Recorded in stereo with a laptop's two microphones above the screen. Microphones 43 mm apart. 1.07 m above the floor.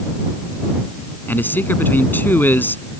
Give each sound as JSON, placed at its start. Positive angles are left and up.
{"t": 1.3, "sound": "a man speaking", "side_deg": 45}